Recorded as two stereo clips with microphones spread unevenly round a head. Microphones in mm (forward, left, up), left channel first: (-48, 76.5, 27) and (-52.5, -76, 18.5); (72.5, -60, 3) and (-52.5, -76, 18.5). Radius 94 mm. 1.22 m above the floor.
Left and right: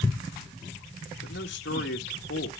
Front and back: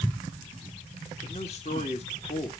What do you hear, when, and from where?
1.2 s a man speaking: 65° left, 1.9 m